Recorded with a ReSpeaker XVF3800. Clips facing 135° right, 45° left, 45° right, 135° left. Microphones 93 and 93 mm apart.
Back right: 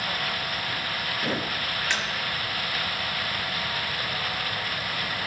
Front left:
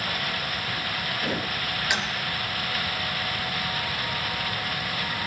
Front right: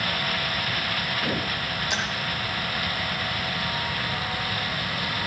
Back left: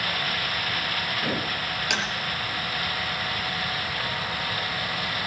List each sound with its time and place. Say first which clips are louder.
1.9 s tapping: front left 2 dB, back left 1 dB; 120° left, 4.5 m